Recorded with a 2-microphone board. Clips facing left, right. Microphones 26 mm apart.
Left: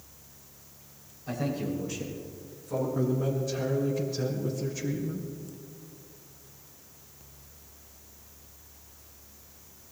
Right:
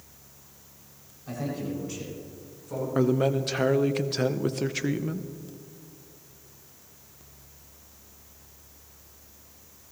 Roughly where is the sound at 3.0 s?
Right.